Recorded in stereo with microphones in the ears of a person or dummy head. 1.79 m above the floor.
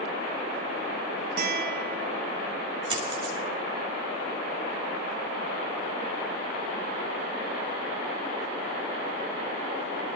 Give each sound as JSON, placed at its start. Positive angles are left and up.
{"t": 1.4, "sound": "a guitar", "side_deg": -60, "distance_m": 2.5}
{"t": 2.9, "sound": "a dropped coin", "side_deg": -35, "distance_m": 3.5}